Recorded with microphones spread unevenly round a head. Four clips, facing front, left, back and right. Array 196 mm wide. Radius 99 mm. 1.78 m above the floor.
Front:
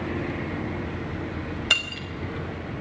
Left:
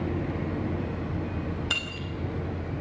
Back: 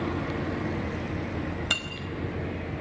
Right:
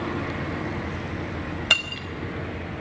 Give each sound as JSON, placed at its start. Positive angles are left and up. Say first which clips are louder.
{"t": 1.7, "sound": "breaking glass", "louder": "right 5 dB, front 3 dB", "azimuth_deg": -60, "distance_m": 4.5}